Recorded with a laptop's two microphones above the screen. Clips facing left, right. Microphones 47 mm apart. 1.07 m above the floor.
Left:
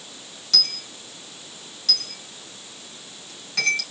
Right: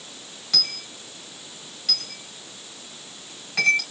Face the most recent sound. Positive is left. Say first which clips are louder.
# left 2 dB
turn(degrees=-15)  # may be behind; listen again after turning